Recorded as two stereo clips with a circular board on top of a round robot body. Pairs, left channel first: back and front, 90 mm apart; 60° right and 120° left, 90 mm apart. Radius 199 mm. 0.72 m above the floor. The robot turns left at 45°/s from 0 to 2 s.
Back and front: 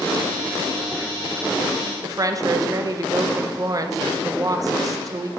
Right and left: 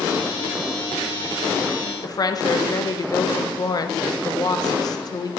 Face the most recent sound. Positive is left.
turn(degrees=-35)